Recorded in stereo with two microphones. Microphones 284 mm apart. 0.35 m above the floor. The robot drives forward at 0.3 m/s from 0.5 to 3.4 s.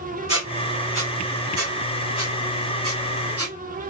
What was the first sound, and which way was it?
A squeak, 60° right (ahead or behind).